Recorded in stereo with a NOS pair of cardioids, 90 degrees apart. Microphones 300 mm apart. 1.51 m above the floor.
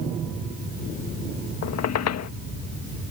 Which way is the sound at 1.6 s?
60° left.